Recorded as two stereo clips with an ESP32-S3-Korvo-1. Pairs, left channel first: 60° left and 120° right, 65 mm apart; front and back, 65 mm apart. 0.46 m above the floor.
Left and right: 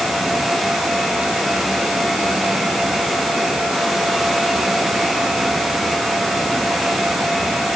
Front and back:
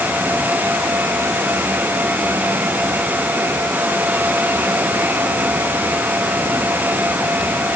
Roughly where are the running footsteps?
I don't hear running footsteps.